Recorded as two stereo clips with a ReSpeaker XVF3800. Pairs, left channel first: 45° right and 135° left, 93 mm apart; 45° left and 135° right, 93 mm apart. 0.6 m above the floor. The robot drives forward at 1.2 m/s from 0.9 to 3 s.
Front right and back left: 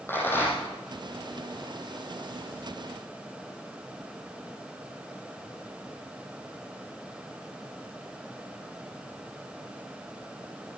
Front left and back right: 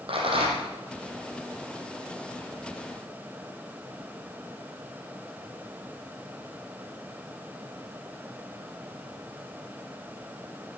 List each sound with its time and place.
0.1 s a rattle: 110° right, 5.5 m